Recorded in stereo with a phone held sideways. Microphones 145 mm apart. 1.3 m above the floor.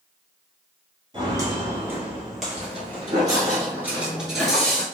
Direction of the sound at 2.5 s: 40° right (ahead or behind).